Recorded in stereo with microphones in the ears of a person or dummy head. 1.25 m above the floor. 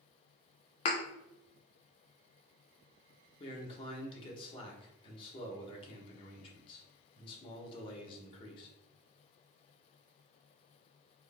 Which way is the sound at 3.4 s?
30° left (ahead or behind).